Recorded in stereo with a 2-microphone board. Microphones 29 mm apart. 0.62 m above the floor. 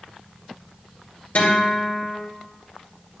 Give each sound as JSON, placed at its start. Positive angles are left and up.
{"t": 1.4, "sound": "a guitar", "side_deg": 65, "distance_m": 3.0}